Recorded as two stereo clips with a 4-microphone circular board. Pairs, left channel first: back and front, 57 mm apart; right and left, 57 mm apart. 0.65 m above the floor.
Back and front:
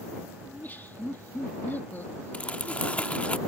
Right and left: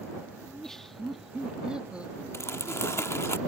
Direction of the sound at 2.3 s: 115° right.